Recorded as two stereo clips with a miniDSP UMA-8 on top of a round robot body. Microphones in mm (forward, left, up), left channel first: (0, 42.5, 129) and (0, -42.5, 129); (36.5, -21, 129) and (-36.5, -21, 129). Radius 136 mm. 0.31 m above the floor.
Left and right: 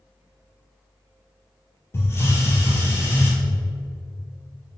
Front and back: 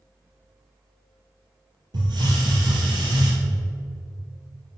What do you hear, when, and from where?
1.9 s a hiss: 150° left, 2.5 m